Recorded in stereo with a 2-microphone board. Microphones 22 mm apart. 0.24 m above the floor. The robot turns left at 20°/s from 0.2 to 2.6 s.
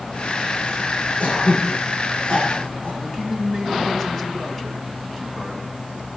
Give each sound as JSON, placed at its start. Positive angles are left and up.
{"t": 1.2, "sound": "throat clearing", "side_deg": 80, "distance_m": 9.5}
{"t": 3.0, "sound": "a man speaking", "side_deg": 15, "distance_m": 2.5}